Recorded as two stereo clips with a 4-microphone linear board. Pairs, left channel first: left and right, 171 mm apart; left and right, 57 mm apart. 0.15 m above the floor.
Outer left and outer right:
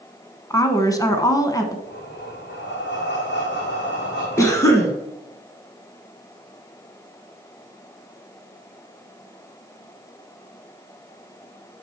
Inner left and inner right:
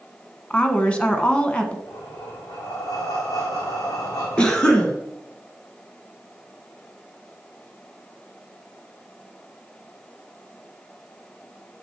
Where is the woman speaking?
20° left (ahead or behind), 1.1 m.